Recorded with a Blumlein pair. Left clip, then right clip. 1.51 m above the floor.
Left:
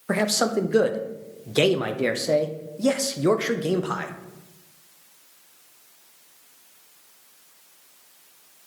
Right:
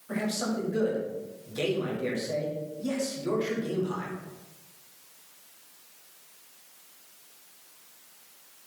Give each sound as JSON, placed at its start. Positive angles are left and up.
{"t": 0.1, "sound": "a man speaking", "azimuth_deg": 55, "distance_m": 0.9}